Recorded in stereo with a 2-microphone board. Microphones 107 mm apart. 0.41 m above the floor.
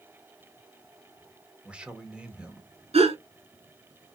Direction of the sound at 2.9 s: 80° right.